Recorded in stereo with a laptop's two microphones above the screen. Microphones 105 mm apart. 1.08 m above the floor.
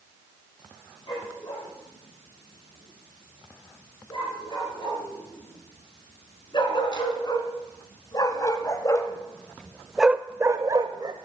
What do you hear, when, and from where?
1.1 s a dog barking: 50° left (ahead or behind), 7.5 m; by 11.2 s 45° right (ahead or behind), 1.1 m